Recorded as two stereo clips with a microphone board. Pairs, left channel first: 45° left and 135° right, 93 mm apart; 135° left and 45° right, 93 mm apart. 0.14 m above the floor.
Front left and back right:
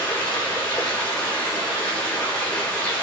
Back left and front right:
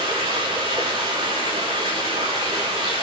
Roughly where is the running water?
Ahead right.